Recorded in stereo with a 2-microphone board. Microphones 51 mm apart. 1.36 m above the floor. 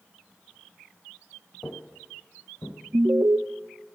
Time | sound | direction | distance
1.6 | footsteps | 35° left (ahead or behind) | 1.6 m
2.9 | an alarm | 50° right (ahead or behind) | 0.5 m